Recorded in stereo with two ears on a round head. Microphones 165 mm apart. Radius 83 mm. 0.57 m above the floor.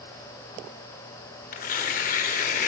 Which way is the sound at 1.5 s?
45° left (ahead or behind).